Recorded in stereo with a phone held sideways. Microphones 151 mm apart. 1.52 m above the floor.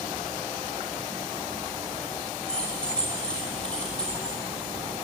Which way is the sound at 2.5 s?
5° left (ahead or behind).